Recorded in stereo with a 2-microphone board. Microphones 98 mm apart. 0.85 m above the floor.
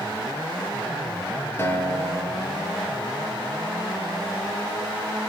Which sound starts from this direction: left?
A guitar, at 1.6 s.